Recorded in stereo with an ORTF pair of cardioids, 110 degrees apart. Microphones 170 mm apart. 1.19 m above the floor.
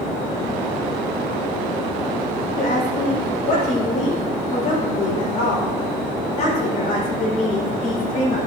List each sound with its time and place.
2.6 s a woman speaking: 50° left, 3 m